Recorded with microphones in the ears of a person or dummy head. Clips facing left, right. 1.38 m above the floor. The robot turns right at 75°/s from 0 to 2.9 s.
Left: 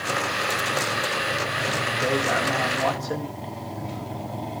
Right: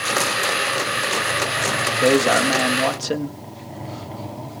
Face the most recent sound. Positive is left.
turn(degrees=-45)